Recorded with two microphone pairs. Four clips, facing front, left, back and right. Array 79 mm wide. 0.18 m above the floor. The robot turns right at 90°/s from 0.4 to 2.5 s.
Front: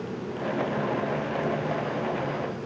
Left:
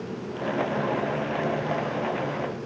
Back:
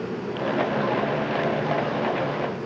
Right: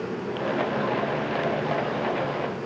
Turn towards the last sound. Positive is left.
No sound to turn to.